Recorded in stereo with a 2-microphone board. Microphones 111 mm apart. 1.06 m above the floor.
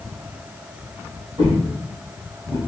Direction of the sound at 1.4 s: 50° right (ahead or behind).